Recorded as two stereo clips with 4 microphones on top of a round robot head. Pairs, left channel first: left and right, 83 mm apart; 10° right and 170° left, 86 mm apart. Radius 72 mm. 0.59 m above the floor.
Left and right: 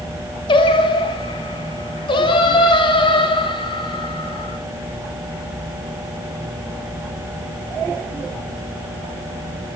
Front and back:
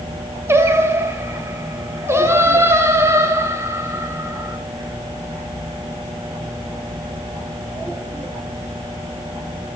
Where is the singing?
110° left, 1.3 m.